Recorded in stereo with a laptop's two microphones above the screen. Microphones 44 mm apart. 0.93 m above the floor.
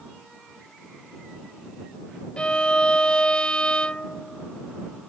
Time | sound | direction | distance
2.4 | a violin | 25° left (ahead or behind) | ?